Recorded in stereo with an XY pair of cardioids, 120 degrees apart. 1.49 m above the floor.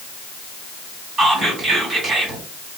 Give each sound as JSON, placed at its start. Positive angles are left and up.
{"t": 1.2, "sound": "whispering", "azimuth_deg": -40, "distance_m": 1.6}